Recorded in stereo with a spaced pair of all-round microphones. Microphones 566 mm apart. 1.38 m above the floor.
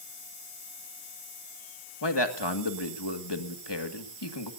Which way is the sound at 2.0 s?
45° left (ahead or behind).